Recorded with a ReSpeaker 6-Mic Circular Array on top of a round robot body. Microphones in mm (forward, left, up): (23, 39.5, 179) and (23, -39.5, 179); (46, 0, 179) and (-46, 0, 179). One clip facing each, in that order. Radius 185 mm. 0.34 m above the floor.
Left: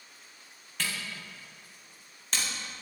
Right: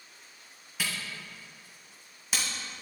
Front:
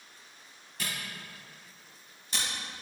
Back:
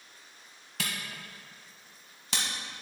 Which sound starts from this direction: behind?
A camera shutter, at 0.8 s.